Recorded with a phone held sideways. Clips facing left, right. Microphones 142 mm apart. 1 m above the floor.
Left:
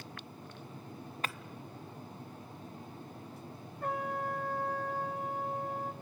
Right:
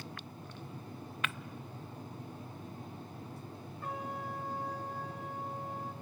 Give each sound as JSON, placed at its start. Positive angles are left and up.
{"t": 1.2, "sound": "breaking glass", "side_deg": 35, "distance_m": 0.6}
{"t": 3.8, "sound": "a trumpet", "side_deg": 55, "distance_m": 1.8}